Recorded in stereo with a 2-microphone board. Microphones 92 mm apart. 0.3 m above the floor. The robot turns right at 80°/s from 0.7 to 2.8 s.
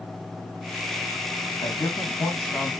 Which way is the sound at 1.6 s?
80° left.